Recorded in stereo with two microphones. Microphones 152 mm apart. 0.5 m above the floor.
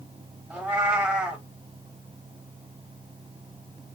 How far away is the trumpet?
I don't hear a trumpet.